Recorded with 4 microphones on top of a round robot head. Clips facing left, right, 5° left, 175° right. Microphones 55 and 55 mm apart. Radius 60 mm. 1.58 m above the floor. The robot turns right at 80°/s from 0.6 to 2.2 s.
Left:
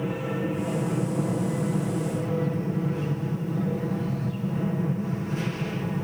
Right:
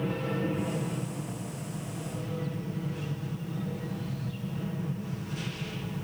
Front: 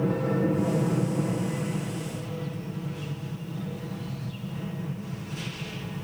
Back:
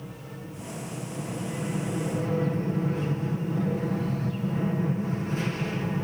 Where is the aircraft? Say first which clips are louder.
Left 2 dB, front 16 dB; 10° left; by 6.0 s 140° left.